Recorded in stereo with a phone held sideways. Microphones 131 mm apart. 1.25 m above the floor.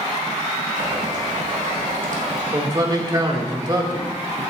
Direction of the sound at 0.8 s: 75° right (ahead or behind).